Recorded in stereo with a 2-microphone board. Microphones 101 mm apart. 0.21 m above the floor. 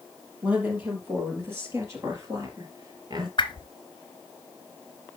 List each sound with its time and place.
0.4 s a woman speaking: 15° right (ahead or behind), 5.5 m; by 3.3 s 45° right (ahead or behind), 4 m
3.4 s a whoosh: 50° left (ahead or behind), 1.0 m